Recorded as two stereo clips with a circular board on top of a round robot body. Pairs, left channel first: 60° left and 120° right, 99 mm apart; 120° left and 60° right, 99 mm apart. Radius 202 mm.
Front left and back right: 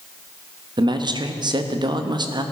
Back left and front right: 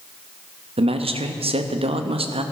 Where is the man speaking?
75° right, 1.2 m.